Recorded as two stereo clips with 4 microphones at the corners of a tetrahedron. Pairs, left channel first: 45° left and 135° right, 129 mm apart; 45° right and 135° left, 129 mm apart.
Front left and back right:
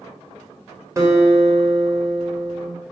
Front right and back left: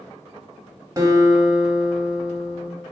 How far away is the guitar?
About 0.9 m.